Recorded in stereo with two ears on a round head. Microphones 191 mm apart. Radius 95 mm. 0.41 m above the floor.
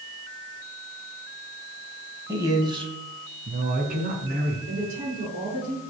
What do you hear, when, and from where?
2.3 s a man speaking: 15° right (ahead or behind), 3 m; by 4.6 s 45° right (ahead or behind), 4 m
4.7 s a woman speaking: 35° right (ahead or behind), 6.5 m